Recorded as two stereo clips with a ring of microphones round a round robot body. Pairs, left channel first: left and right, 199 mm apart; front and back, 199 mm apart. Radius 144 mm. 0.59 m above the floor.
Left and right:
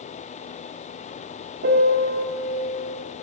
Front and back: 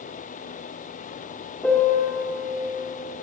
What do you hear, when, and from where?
1.6 s a piano: 85° right, 1.8 m